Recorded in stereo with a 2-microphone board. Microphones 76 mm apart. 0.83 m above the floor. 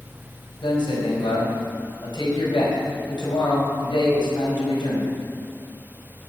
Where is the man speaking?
80° left, 5 m.